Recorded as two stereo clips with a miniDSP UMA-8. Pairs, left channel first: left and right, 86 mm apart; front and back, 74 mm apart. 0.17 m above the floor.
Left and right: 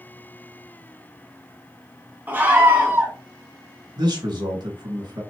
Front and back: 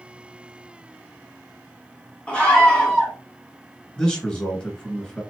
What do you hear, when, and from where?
2.3 s a scream: 55° right, 1.6 m
4.0 s a man speaking: 75° right, 2 m